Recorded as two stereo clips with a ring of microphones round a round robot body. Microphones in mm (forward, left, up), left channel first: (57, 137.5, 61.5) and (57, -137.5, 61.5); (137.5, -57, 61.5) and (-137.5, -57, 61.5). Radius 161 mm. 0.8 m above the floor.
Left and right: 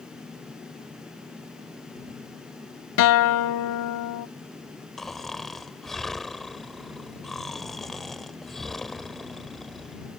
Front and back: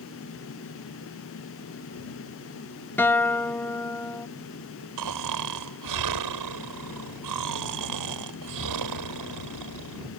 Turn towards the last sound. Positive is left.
turn(degrees=180)